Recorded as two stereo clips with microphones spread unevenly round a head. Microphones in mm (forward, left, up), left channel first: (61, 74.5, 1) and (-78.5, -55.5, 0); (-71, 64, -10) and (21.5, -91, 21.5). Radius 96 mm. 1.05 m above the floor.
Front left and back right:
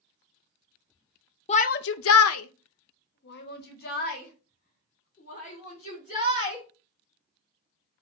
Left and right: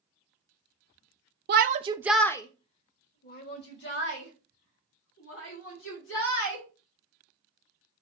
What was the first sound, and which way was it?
A shout, 15° right.